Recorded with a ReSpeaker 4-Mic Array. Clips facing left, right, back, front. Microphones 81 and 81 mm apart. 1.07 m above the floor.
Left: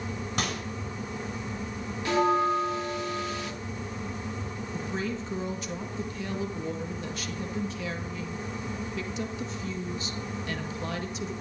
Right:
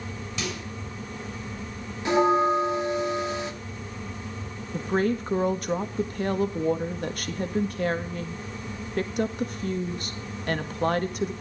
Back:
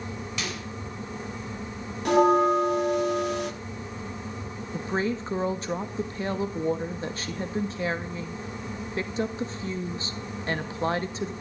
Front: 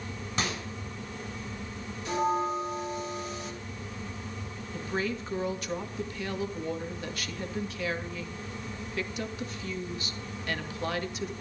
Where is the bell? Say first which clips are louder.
Right 3 dB, back 9 dB; 160° right, 2.5 m.